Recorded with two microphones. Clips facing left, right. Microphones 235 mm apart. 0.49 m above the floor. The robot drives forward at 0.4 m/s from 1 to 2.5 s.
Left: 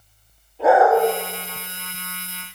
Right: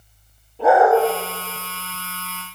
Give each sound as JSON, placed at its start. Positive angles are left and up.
{"t": 0.6, "sound": "a dog barking", "side_deg": -35, "distance_m": 5.0}